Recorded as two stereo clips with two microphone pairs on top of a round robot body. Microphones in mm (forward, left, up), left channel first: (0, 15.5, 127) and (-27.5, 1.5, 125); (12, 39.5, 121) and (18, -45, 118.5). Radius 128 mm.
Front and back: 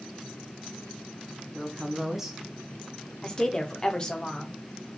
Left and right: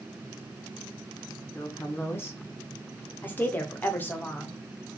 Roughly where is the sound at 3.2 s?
Ahead left.